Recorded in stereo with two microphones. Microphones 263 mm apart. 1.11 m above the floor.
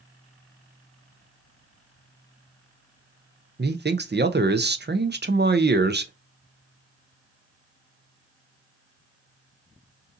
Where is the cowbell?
I don't hear a cowbell.